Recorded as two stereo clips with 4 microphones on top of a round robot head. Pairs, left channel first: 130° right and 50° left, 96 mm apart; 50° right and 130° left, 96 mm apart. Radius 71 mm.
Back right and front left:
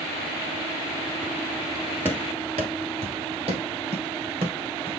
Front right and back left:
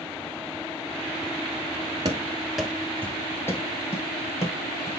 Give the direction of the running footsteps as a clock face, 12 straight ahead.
8 o'clock.